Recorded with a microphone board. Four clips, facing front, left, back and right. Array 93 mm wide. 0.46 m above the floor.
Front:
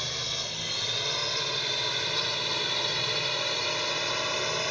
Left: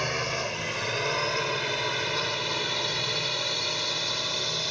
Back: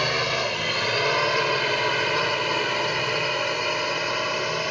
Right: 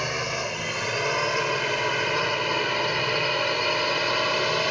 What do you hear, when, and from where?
0.0 s a drone: 175° right; by 4.7 s 110° right